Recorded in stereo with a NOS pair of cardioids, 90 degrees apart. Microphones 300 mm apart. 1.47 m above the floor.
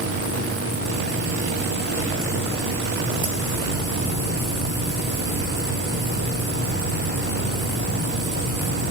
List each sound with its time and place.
0.0 s a machine running: 50° right, 6 m